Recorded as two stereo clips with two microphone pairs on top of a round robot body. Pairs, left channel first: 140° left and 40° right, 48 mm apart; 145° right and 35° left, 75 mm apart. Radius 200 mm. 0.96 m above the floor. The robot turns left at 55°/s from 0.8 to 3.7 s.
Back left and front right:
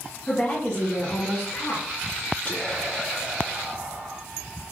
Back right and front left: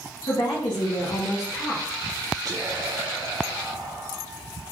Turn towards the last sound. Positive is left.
turn(degrees=10)